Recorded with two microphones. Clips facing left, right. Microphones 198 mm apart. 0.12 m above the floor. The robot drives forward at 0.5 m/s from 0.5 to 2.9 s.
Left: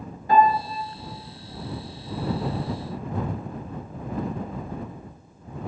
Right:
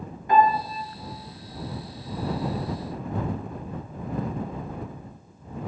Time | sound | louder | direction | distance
0.3 | a piano | left 1 dB | 35° left (ahead or behind) | 0.9 m